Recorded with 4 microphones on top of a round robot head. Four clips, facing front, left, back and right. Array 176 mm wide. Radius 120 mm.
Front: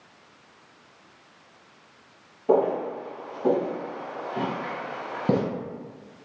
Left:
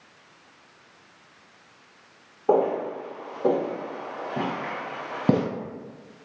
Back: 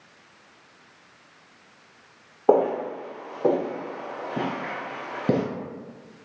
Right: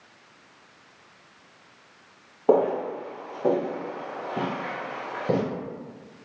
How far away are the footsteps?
About 1.6 m.